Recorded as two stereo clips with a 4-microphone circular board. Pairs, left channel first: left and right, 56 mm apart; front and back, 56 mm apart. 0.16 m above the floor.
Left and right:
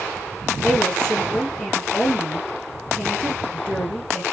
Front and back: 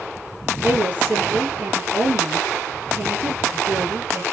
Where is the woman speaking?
150° left, 1.9 m.